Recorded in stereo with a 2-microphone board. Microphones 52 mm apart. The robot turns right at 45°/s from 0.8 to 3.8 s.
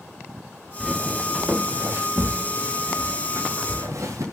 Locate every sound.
0.8 s footsteps: 10° right (ahead or behind), 1.8 m; by 4.2 s 80° right, 2.5 m